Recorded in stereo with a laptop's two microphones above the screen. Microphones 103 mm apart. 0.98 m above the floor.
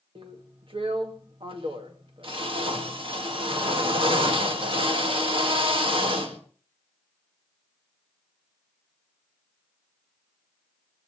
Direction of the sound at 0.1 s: 55° right (ahead or behind).